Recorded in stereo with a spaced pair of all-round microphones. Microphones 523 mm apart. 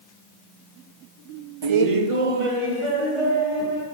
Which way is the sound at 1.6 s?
50° right (ahead or behind).